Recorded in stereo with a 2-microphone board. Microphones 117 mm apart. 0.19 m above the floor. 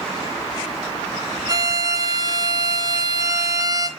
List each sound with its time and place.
1.5 s a violin: 35° right (ahead or behind), 2.5 m